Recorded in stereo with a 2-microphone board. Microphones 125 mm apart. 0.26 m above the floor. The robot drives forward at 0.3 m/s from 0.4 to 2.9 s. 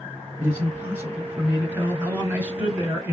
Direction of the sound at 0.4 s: 20° right (ahead or behind).